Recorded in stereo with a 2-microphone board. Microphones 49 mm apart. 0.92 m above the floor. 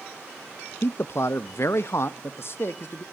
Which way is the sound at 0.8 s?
50° left (ahead or behind).